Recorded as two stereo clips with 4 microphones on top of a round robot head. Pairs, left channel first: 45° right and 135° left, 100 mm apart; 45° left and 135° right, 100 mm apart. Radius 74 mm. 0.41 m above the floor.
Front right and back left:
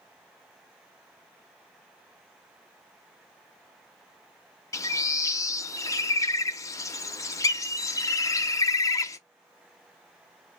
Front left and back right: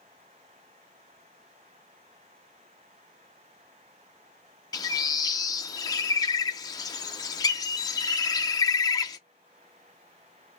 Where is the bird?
5° left, 0.5 m.